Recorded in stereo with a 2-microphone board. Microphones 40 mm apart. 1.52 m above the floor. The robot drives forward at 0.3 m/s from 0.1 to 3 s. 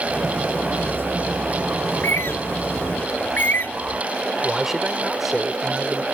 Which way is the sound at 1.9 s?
65° left (ahead or behind).